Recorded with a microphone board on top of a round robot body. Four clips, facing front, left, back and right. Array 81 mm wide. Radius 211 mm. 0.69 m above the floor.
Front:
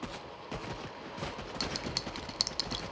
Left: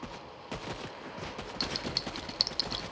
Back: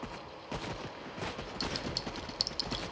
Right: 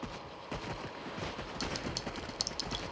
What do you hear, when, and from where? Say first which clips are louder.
1.6 s a clink: left 1 dB, back 1 dB; 25° left